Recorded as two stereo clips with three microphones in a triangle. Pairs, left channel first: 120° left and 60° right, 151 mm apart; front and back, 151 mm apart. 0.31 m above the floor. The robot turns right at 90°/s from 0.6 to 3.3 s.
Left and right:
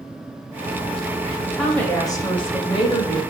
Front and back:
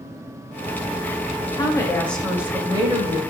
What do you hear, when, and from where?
1.5 s a woman speaking: 20° left, 1.0 m; by 3.2 s 175° left, 1.0 m